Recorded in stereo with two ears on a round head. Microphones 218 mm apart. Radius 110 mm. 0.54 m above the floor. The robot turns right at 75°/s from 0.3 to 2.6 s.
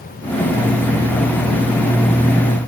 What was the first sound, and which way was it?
Only background noise.